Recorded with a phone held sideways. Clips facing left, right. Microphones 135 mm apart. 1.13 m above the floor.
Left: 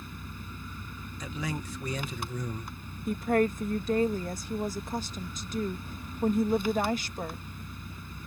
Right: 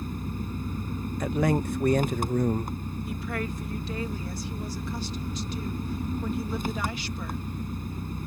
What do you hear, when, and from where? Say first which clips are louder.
0.0 s an engine running: right 10 dB; 45° right (ahead or behind)
1.2 s a man speaking: right 11 dB; 55° right (ahead or behind)
3.1 s a woman speaking: left 9 dB; 45° left (ahead or behind)